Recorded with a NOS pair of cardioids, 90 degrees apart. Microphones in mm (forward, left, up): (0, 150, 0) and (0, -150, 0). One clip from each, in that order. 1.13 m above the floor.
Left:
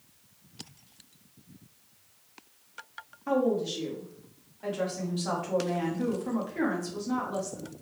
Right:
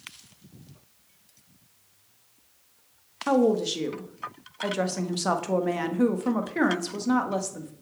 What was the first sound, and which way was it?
A woman speaking, 60° right.